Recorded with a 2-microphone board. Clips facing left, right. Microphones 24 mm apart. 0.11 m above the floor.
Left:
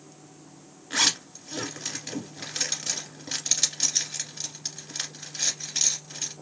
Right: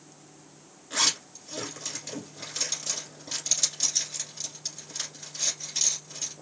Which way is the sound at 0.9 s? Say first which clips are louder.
Left 2 dB; 25° left (ahead or behind).